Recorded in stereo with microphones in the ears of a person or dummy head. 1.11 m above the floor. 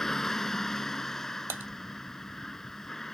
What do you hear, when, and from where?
0.0 s a vehicle: centre (ahead or behind)
1.5 s typing on a keyboard: 15° right (ahead or behind)